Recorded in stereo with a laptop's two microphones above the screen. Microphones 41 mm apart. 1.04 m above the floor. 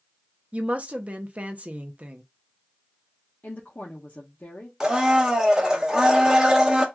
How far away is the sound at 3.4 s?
About 0.7 m.